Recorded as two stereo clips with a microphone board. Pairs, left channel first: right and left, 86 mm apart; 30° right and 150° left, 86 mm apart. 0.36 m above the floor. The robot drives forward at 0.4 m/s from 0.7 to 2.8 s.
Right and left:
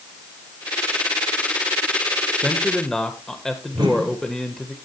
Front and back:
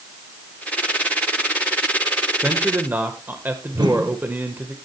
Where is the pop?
No pop in this recording.